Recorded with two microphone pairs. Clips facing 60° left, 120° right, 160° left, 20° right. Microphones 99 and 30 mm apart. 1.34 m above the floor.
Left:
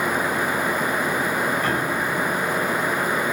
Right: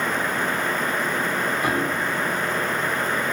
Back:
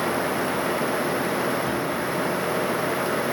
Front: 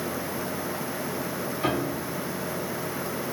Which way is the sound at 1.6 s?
45° right.